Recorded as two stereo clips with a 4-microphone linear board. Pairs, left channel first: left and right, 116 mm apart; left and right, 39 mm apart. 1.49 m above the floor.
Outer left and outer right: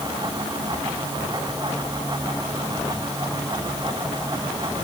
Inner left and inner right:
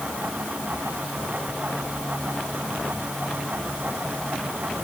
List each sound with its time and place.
Only background noise.